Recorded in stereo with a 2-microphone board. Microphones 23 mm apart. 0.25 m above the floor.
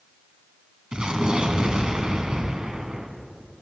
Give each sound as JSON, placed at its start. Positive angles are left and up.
{"t": 0.9, "sound": "an explosion", "side_deg": -40, "distance_m": 2.0}